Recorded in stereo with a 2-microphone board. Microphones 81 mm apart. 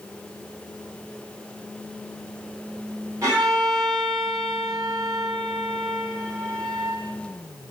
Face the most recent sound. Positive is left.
turn(degrees=-40)  # may be behind; listen again after turning